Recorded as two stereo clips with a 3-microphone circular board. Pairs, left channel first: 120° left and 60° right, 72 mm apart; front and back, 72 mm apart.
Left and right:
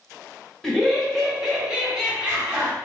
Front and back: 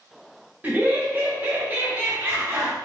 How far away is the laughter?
About 1.0 m.